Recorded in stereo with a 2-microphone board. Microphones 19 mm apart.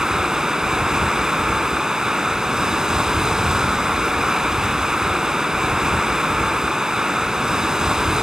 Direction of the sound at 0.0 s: 40° right (ahead or behind).